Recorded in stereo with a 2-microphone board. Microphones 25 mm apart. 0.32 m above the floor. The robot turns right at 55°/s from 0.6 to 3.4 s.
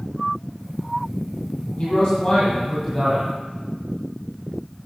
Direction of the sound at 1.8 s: 110° left.